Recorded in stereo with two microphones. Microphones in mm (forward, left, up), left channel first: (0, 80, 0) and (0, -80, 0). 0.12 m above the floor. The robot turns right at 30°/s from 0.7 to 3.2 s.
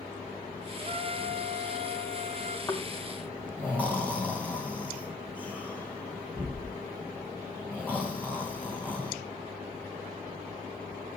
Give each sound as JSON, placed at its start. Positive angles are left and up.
{"t": 0.8, "sound": "a trumpet", "azimuth_deg": -135, "distance_m": 0.8}
{"t": 2.7, "sound": "snoring", "side_deg": 25, "distance_m": 2.5}